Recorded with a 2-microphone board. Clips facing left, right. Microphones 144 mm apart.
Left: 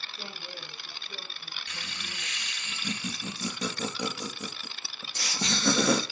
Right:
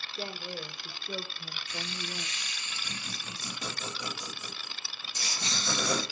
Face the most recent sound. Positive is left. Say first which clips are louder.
# right 5 dB
turn(degrees=80)